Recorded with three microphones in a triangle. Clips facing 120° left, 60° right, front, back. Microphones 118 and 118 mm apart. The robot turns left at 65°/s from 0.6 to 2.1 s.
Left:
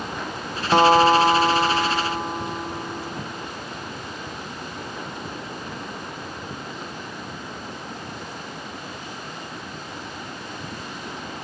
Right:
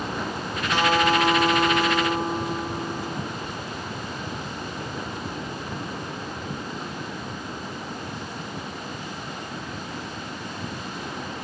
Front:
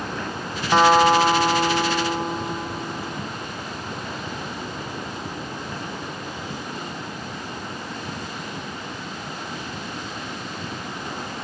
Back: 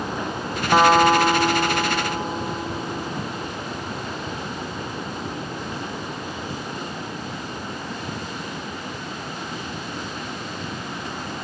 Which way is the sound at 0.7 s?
100° left.